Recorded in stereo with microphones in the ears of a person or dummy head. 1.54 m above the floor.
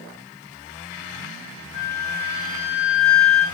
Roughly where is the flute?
Left.